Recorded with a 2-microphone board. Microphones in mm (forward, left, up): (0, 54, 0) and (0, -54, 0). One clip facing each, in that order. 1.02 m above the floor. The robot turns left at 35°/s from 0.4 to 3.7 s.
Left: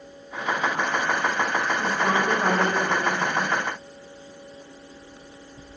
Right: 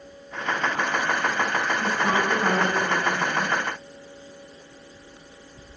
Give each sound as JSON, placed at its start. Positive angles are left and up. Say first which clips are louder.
{"t": 1.8, "sound": "a woman speaking", "louder": "even", "azimuth_deg": 120, "distance_m": 4.0}